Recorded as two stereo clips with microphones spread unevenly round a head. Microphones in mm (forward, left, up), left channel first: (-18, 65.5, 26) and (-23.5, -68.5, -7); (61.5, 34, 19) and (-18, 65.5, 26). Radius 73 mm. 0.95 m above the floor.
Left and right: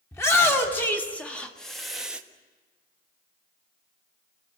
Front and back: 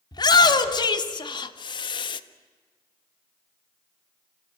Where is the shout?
10° left, 3 m; by 2.2 s 15° right, 1.3 m.